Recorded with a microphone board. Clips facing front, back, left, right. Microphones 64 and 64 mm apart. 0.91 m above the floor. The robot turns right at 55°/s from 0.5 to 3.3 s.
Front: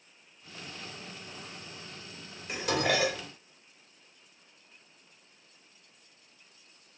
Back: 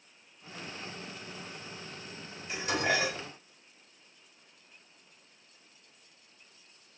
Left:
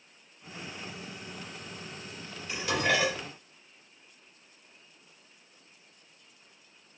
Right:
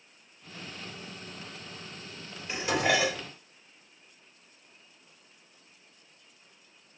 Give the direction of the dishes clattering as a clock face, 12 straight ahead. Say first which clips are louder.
Front 1 dB, right 1 dB; 1 o'clock.